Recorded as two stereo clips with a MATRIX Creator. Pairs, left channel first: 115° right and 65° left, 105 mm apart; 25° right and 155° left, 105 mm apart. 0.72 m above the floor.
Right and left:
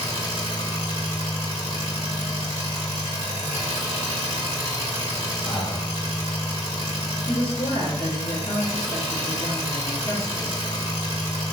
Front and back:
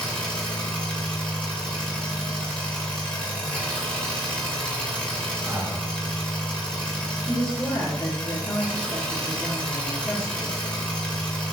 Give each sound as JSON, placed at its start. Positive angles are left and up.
{"t": 0.0, "sound": "an engine running", "azimuth_deg": -100, "distance_m": 1.4}
{"t": 5.4, "sound": "breathing", "azimuth_deg": -160, "distance_m": 1.5}
{"t": 7.3, "sound": "a woman speaking", "azimuth_deg": -80, "distance_m": 1.0}